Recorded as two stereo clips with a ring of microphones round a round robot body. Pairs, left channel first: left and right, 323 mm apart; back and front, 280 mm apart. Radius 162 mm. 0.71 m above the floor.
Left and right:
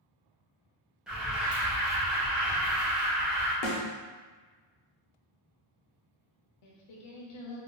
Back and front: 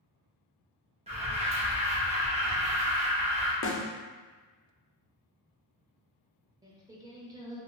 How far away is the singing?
About 0.7 m.